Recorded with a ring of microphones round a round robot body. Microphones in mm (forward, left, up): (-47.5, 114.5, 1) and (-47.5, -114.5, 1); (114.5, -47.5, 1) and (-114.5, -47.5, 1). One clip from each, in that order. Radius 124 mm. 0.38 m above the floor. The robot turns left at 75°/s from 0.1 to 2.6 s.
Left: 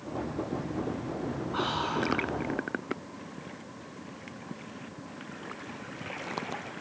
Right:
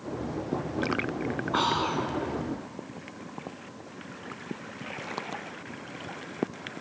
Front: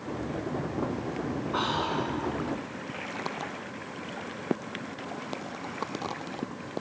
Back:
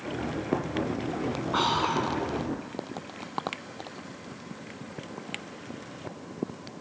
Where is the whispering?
120° right, 3 m; by 2.1 s 160° right, 3 m.